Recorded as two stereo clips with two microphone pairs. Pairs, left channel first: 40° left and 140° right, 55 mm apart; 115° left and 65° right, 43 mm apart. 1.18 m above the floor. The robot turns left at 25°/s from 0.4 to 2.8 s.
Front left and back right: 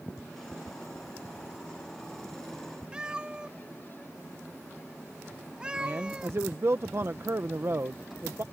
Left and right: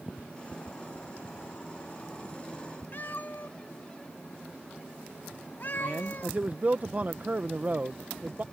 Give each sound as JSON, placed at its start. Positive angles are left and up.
{"t": 2.9, "sound": "a cat meowing", "azimuth_deg": 150}
{"t": 5.8, "sound": "a man speaking", "azimuth_deg": -110}